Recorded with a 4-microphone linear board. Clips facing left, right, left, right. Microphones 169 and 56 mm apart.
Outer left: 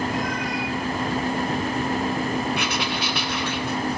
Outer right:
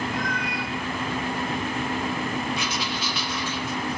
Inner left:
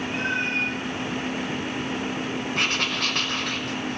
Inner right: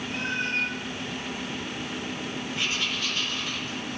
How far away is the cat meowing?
About 7.5 m.